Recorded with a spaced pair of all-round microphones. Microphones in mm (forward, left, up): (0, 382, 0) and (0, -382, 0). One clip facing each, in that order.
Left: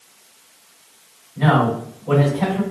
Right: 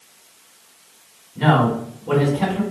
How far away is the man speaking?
About 1.5 m.